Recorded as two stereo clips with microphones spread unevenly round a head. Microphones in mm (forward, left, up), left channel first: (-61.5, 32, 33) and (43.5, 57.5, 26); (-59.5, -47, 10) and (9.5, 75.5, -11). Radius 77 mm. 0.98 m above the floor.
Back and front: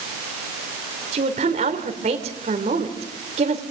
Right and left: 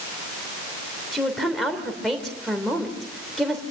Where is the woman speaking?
30° right, 3 m.